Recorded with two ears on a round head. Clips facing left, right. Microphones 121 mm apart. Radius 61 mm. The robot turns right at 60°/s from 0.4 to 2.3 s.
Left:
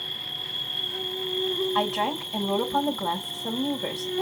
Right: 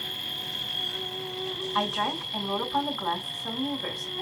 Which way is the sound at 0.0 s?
25° right.